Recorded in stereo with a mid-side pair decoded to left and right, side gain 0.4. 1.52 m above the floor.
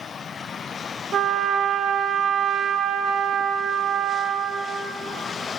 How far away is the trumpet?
About 0.7 m.